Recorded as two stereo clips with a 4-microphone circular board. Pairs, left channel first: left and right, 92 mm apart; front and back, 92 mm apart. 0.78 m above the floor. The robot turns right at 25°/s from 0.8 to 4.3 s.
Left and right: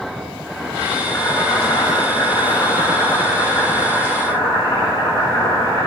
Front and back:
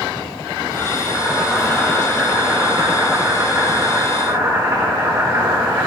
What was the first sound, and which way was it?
Boiling, 45° left.